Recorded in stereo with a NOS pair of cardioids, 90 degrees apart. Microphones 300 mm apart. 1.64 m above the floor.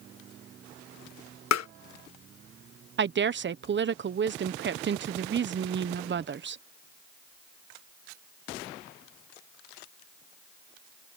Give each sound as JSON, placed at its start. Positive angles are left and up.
{"t": 1.5, "sound": "tapping", "azimuth_deg": 60}
{"t": 3.0, "sound": "a woman speaking", "azimuth_deg": -40}